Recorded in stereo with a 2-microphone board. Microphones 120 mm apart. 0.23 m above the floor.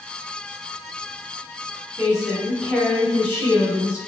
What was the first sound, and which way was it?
A woman speaking, 5° right (ahead or behind).